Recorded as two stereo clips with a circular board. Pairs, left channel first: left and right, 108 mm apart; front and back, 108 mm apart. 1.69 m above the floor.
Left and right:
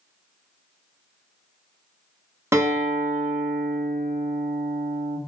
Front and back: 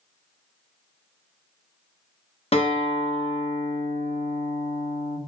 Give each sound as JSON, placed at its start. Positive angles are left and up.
{"t": 2.5, "sound": "a guitar", "azimuth_deg": -25, "distance_m": 0.9}